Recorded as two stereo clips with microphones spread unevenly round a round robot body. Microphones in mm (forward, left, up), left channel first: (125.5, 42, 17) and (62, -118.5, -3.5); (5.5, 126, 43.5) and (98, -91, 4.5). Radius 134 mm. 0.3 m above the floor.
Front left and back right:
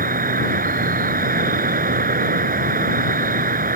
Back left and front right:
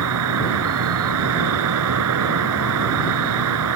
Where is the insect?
80° right.